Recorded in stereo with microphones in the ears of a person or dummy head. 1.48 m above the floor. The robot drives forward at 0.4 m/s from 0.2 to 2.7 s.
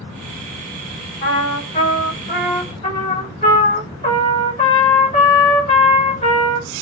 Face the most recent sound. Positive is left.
turn(degrees=20)  # may be behind; listen again after turning